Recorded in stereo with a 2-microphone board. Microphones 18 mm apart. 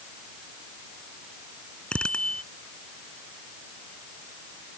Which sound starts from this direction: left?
A bicycle bell, at 1.9 s.